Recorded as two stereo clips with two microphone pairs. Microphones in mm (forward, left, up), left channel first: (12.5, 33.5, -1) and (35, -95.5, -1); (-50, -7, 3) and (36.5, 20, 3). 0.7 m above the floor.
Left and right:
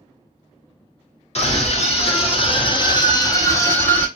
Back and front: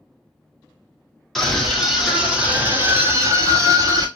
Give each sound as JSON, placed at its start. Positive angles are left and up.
{"t": 1.4, "sound": "a scream", "azimuth_deg": 110, "distance_m": 1.7}